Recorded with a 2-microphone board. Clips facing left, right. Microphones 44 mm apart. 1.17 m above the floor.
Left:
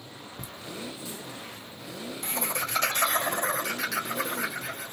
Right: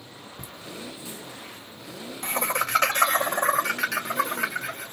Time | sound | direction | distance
0.4 | laughter | 5° left (ahead or behind) | 0.7 m